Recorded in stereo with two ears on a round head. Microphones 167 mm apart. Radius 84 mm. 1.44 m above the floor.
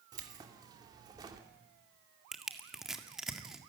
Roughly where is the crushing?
Centre.